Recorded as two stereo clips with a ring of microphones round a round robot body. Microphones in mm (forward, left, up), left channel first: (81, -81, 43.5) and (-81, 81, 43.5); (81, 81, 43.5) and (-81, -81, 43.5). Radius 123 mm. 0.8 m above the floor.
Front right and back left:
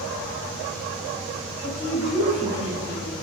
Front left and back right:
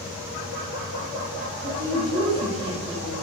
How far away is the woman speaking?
About 1.7 m.